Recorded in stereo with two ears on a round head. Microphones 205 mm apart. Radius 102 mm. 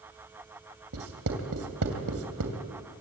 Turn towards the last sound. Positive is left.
turn(degrees=-65)  # may be behind; listen again after turning